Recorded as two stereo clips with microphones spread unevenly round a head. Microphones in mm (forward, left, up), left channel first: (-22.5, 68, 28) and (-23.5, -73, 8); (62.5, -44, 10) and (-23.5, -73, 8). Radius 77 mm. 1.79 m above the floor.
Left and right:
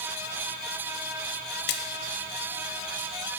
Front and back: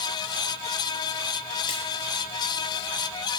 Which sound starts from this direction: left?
A splash, at 1.7 s.